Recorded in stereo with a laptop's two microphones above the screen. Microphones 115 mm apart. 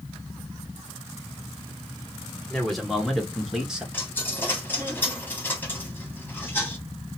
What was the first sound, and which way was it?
A man speaking, 5° left (ahead or behind).